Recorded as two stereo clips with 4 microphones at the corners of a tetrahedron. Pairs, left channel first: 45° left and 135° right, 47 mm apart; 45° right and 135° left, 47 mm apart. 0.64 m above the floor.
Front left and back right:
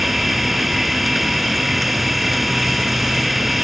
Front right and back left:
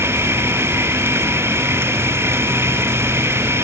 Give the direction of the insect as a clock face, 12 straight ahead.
7 o'clock.